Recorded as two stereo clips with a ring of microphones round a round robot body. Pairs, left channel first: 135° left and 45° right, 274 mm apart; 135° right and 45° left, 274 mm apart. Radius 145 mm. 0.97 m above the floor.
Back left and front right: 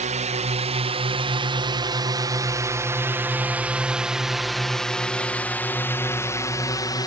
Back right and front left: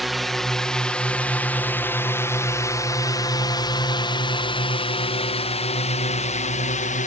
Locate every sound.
0.0 s a drone: 45° right; by 7.1 s 165° right